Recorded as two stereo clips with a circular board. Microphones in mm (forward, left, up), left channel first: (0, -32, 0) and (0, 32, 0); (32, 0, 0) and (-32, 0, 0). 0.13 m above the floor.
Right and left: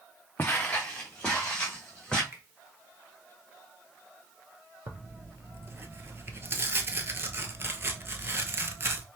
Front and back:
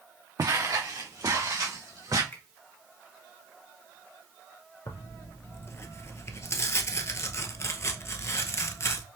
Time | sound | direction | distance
0.4 | footsteps | 150° right | 0.7 m
2.3 | a finger snap | 40° left | 2 m
4.9 | tearing paper | 40° left | 0.6 m